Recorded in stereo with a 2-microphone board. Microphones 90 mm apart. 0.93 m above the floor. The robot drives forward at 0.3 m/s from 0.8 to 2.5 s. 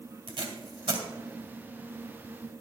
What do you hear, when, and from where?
0.3 s tape being pulled: 65° right (ahead or behind), 2 m; by 1.0 s 70° right (ahead or behind), 2 m